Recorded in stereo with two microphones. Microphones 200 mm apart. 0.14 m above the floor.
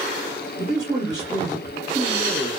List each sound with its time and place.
0.6 s a man speaking: 20° right (ahead or behind), 1.1 m